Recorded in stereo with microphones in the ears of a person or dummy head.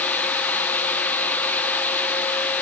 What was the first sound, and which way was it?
Only background noise.